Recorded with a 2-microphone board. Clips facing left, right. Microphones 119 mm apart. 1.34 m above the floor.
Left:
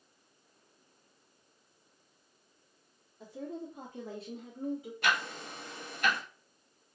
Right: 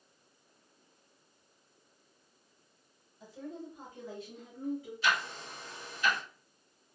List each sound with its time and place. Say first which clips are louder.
3.2 s a woman speaking: left 3 dB; 75° left (ahead or behind), 1.2 m; by 4.9 s 30° left (ahead or behind), 0.8 m
5.0 s ticking: even; 65° left (ahead or behind), 0.8 m